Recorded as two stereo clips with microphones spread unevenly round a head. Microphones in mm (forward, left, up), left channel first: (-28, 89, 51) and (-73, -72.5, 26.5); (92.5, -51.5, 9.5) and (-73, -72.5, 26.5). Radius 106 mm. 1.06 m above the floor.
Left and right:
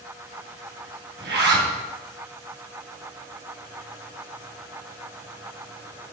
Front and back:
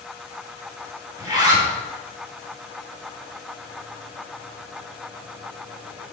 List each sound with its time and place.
1.2 s a zipper: 105° right, 2 m